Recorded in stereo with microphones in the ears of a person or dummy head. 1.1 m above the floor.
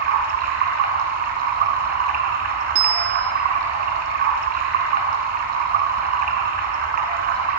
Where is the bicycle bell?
80° right, 2 m.